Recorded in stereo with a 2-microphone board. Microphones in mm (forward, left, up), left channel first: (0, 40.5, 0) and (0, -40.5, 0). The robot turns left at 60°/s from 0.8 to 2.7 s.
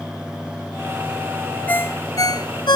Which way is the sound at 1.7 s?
20° left (ahead or behind).